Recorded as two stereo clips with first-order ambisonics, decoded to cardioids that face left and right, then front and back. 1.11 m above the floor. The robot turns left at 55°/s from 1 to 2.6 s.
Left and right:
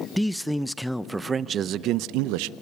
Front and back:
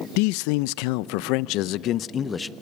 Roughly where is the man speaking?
Ahead.